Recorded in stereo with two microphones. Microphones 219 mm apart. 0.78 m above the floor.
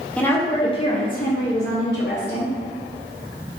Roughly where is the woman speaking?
Centre.